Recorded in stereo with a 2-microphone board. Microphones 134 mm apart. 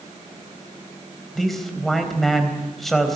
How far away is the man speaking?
About 3.5 m.